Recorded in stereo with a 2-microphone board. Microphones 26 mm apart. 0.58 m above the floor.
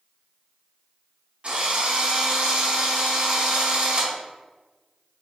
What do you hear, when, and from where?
1.4 s a drill: 45° right (ahead or behind), 1.2 m